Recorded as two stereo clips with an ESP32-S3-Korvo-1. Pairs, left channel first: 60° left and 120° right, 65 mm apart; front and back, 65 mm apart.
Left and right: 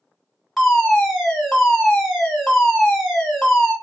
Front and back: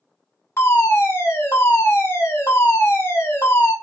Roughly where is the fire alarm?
Ahead right.